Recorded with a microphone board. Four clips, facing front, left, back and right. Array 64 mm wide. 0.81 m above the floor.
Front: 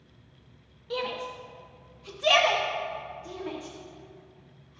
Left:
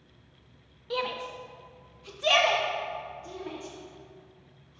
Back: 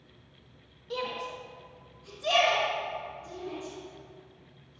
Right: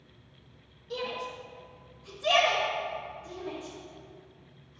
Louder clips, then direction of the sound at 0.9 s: Left 3 dB, front 2 dB; 75° left.